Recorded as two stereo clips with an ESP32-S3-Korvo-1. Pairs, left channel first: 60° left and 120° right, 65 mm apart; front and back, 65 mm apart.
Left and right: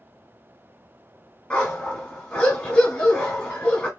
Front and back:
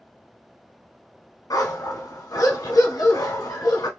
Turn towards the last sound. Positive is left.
turn(degrees=-10)